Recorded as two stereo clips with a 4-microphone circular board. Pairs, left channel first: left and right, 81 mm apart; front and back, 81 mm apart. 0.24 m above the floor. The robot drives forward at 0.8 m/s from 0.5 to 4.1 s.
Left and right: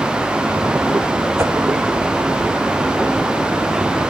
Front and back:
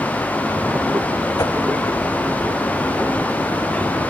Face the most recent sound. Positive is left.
turn(degrees=-50)